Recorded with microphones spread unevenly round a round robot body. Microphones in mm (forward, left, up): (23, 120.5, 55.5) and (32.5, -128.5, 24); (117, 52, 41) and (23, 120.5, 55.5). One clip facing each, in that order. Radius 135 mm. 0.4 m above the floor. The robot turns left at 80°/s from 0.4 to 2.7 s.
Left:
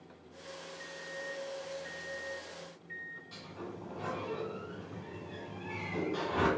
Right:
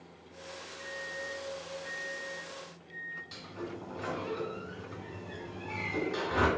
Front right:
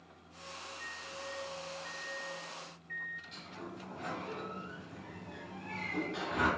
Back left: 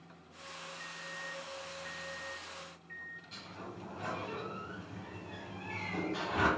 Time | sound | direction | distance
0.8 | a microwave | 70° right | 0.7 m
3.3 | a sliding door | 150° right | 1.5 m